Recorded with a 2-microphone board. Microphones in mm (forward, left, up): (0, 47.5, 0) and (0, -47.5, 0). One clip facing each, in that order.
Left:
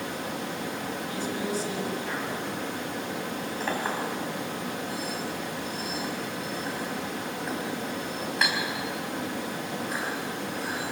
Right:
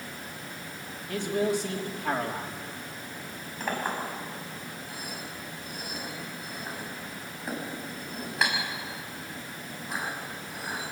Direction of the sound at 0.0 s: 75° left (ahead or behind).